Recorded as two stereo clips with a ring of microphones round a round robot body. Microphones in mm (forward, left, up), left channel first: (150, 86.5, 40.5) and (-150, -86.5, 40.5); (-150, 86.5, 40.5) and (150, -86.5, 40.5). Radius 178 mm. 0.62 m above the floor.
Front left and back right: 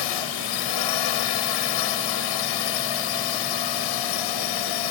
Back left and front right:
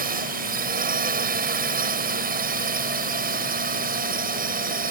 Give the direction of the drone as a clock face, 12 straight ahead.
11 o'clock.